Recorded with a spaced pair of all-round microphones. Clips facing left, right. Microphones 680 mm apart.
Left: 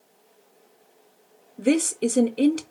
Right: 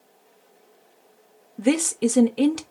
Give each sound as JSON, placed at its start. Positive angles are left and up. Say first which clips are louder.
{"t": 1.6, "sound": "a woman speaking", "louder": "even", "side_deg": -30, "distance_m": 0.5}